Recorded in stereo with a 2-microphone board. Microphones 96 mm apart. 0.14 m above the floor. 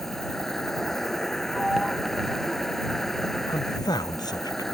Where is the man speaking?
45° left (ahead or behind).